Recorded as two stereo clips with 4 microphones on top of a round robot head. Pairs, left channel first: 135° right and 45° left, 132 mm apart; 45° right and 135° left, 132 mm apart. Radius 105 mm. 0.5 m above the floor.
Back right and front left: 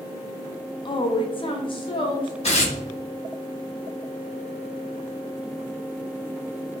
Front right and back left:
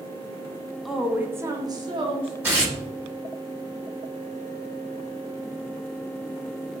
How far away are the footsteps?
I don't hear footsteps.